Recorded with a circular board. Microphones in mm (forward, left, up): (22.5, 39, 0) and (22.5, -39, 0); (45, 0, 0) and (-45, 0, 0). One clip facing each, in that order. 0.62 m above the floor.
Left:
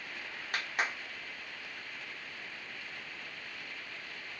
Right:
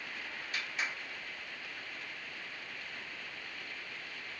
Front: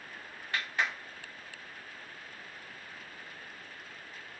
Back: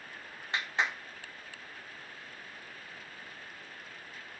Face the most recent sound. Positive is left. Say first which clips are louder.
# left 5 dB, back 1 dB
turn(degrees=115)